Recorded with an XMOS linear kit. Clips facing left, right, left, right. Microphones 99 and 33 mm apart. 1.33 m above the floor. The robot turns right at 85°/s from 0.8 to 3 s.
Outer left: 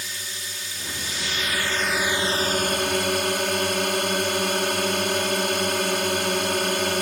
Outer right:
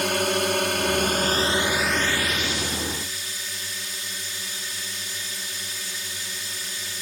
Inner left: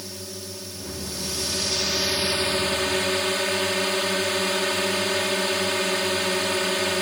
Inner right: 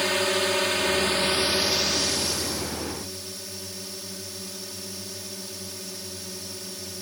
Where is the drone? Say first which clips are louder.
Outer right 16 dB, inner right 14 dB; 95° right; by 7.0 s 95° left.